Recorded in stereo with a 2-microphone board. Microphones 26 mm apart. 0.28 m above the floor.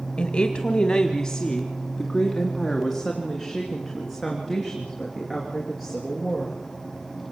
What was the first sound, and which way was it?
A woman speaking, 40° left (ahead or behind).